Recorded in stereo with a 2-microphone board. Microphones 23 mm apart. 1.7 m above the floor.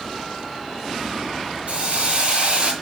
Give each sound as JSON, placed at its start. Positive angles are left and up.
{"t": 1.7, "sound": "a hiss", "side_deg": -50, "distance_m": 2.5}